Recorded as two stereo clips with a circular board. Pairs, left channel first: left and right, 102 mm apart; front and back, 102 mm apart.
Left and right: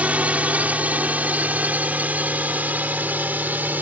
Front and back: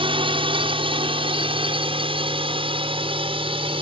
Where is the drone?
165° right; by 3.8 s 160° right.